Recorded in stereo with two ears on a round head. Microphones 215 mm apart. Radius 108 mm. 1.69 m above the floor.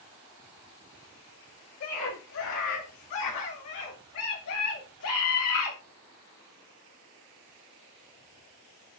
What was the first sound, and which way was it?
A scream, 80° left.